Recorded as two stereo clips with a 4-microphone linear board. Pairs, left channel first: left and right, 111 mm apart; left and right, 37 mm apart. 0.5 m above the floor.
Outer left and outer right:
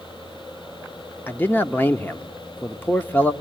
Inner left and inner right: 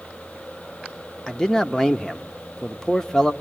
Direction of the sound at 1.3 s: 15° left (ahead or behind).